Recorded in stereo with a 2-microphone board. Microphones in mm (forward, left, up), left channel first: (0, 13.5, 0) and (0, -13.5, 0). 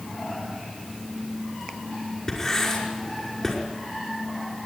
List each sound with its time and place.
2.3 s writing: 25° left (ahead or behind), 5.5 m